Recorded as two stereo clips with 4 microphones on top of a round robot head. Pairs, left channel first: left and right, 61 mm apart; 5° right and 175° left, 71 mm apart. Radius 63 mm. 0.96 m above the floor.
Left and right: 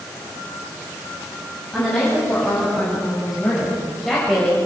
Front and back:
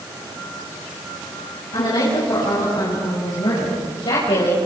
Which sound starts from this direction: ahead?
A woman speaking, at 1.7 s.